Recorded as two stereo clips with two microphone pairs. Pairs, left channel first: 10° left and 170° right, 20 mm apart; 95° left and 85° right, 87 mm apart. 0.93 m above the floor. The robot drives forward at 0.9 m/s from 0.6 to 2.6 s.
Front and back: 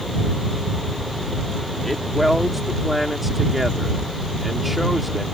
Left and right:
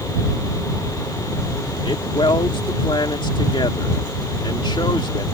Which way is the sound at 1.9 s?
95° left.